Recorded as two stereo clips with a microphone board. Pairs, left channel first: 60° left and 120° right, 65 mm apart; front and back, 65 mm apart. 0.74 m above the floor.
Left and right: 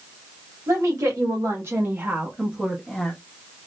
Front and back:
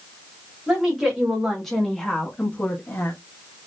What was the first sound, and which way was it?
A woman speaking, 100° right.